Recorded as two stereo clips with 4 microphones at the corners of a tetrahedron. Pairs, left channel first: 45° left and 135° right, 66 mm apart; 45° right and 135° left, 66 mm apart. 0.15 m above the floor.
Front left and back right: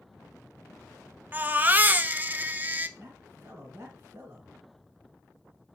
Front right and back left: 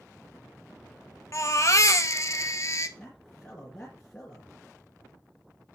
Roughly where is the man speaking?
Behind right.